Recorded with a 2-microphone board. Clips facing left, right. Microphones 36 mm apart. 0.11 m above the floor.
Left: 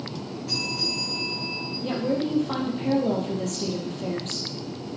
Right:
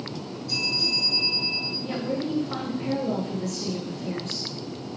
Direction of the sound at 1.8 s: 60° left (ahead or behind).